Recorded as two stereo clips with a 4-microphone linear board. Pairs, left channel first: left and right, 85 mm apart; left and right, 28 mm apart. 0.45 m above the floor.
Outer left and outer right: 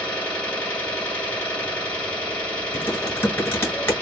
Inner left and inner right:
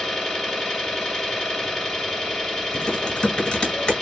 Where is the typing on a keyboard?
30° left (ahead or behind), 1.1 m.